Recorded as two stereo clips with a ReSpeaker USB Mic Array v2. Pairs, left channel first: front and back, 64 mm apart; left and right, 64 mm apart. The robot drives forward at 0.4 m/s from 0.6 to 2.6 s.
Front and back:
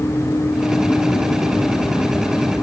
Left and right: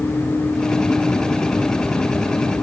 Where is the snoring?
I don't hear snoring.